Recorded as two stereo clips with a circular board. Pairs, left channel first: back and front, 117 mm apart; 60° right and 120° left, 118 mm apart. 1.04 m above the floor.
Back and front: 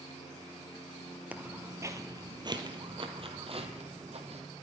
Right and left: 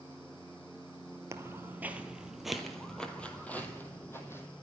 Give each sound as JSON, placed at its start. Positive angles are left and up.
{"t": 1.3, "sound": "footsteps", "azimuth_deg": 70, "distance_m": 1.3}